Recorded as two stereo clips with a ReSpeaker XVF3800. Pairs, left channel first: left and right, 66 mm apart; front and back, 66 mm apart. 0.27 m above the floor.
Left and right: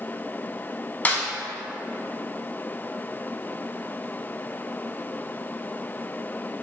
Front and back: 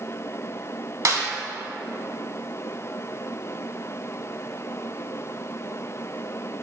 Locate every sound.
1.1 s a snare drum: 150° left, 0.7 m